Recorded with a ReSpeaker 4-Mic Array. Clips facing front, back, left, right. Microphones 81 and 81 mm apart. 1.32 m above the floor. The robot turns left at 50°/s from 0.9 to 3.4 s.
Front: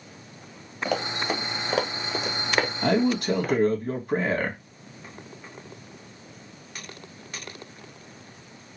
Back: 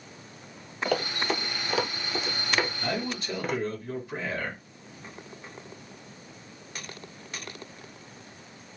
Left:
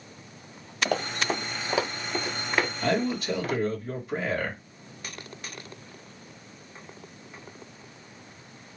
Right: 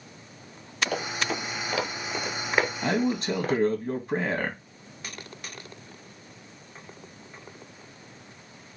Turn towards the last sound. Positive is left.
turn(degrees=-40)